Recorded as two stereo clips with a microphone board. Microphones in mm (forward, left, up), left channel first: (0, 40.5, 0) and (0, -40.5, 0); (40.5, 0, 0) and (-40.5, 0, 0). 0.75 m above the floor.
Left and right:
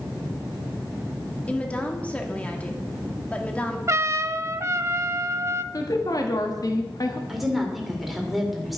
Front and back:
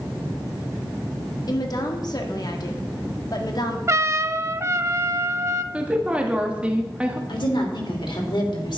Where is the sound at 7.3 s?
Straight ahead, 3 m.